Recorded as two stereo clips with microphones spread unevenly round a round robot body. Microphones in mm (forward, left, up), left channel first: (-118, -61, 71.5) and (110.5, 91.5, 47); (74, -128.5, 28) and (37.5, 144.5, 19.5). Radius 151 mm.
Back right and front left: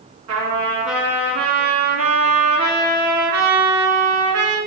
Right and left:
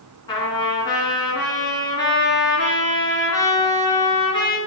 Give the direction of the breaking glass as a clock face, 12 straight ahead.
No breaking glass in this recording.